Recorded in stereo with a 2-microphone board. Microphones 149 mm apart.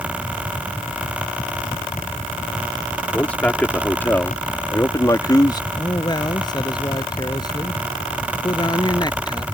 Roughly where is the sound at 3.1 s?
Centre.